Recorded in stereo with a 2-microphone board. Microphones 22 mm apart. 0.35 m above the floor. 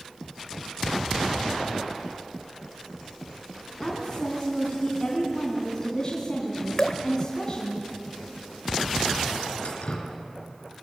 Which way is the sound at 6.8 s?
35° left (ahead or behind).